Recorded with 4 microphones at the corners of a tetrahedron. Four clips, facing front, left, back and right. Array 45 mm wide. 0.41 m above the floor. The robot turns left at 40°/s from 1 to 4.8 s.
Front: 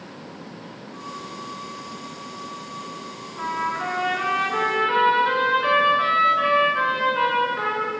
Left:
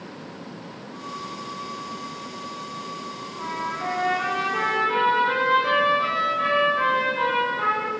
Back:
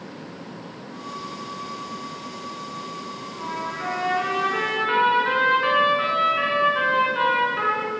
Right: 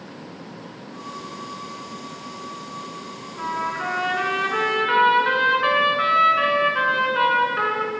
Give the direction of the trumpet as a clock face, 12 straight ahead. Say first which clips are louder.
Right 4 dB, front 5 dB; 2 o'clock.